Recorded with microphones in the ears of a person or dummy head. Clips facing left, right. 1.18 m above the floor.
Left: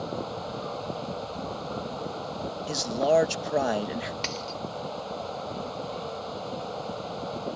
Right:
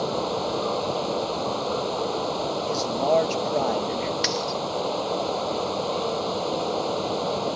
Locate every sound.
0.0 s running water: 80° right
2.7 s a man speaking: 10° left (ahead or behind)
4.2 s a dropped coin: 20° right (ahead or behind)